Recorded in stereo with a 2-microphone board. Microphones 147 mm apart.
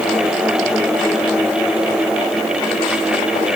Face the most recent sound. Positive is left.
No sound to turn to.